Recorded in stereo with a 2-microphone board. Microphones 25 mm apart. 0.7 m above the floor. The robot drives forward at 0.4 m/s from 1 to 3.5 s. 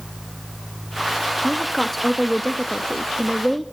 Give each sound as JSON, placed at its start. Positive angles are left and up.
{"t": 1.4, "sound": "a woman speaking", "side_deg": 10, "distance_m": 0.7}